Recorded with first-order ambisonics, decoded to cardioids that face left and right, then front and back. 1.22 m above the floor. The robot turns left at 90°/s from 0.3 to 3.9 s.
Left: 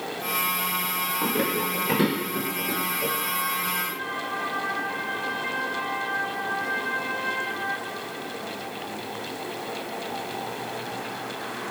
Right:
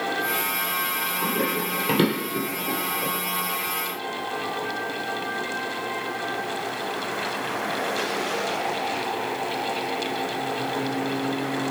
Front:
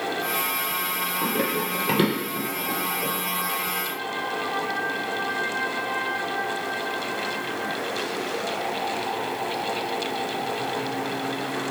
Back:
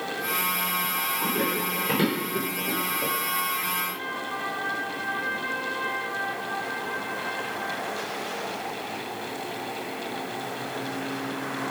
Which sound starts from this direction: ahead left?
Running footsteps, at 1.2 s.